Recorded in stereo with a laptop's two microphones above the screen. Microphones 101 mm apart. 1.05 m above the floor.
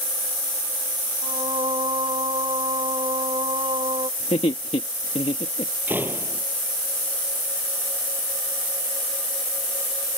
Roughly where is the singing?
Right.